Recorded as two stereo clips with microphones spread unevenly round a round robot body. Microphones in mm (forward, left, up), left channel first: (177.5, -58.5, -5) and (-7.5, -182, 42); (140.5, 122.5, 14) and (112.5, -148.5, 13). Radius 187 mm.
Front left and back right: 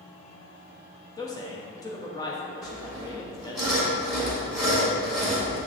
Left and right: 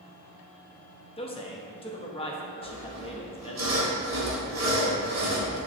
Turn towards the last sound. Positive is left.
turn(degrees=-55)